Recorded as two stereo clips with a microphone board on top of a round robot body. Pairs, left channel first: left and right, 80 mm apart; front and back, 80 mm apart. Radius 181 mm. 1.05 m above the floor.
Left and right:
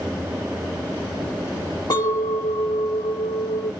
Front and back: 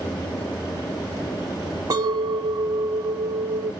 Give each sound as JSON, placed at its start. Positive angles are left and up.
{"t": 1.9, "sound": "a clink", "azimuth_deg": 135, "distance_m": 0.6}